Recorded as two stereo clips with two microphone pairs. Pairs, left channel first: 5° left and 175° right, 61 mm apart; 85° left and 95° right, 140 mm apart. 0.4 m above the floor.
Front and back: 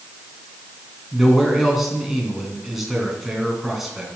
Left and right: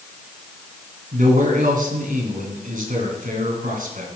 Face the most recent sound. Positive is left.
turn(degrees=-90)